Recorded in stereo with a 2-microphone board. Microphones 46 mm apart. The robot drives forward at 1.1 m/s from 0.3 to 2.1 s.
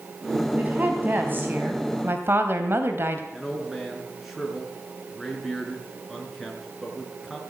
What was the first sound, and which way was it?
A woman speaking, 35° right (ahead or behind).